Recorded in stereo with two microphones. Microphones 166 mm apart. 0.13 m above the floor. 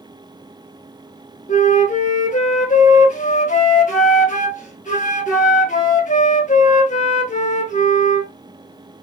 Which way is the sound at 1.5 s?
50° left (ahead or behind).